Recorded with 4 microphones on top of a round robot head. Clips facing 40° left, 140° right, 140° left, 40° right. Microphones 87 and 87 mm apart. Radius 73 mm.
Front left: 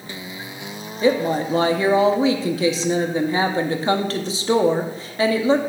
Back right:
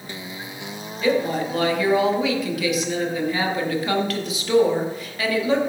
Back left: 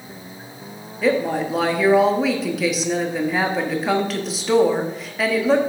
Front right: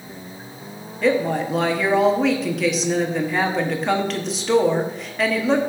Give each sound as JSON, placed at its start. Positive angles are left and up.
{"t": 1.0, "sound": "a woman speaking", "azimuth_deg": 55, "distance_m": 0.9}